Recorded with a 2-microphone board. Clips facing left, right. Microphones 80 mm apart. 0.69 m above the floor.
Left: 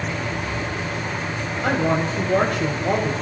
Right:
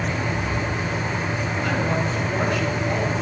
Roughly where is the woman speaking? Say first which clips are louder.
Left 5 dB; left.